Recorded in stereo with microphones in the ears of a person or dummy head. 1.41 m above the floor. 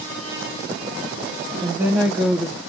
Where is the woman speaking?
15° right (ahead or behind), 1.0 m.